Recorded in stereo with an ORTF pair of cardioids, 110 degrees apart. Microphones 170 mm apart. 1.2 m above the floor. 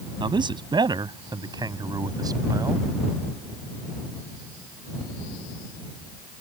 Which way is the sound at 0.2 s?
30° right.